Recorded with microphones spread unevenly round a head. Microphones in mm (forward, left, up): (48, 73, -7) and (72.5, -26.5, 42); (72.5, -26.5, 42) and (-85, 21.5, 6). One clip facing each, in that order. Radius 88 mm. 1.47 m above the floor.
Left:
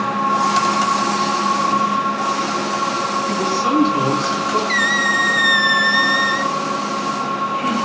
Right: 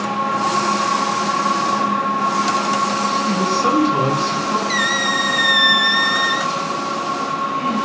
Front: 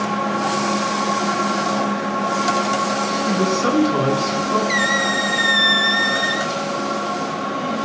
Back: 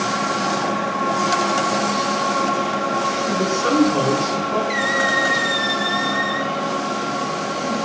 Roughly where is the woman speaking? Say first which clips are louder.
Right 1 dB, front 2 dB; ahead right.